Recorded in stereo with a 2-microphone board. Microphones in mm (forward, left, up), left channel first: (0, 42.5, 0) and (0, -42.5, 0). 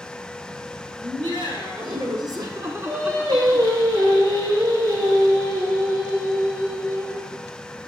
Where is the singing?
70° right (ahead or behind), 3 m.